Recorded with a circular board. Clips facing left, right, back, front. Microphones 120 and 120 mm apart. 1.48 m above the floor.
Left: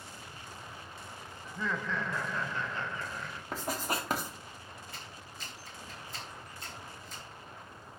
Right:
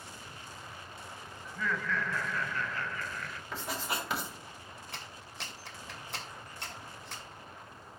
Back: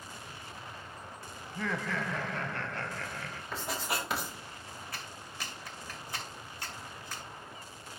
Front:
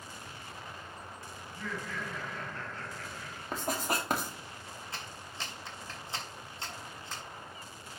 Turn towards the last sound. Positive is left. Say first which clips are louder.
# right 1 dB, even
turn(degrees=-65)